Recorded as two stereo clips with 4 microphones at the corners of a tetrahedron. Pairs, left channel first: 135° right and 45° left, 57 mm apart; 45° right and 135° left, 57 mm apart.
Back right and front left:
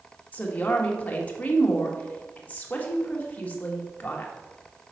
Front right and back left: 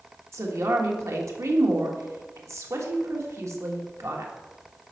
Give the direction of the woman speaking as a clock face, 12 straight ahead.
7 o'clock.